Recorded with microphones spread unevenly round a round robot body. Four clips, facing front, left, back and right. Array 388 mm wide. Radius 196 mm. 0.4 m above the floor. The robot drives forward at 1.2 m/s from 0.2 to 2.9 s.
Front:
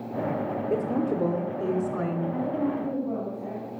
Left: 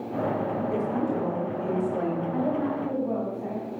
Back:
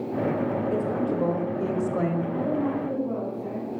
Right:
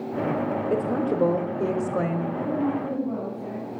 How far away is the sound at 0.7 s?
About 1.8 m.